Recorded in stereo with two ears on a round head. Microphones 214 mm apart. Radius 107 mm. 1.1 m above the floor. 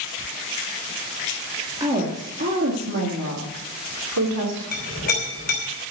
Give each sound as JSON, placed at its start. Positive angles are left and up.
{"t": 1.8, "sound": "a woman speaking", "side_deg": -20, "distance_m": 2.0}
{"t": 4.7, "sound": "a clink", "side_deg": 40, "distance_m": 5.0}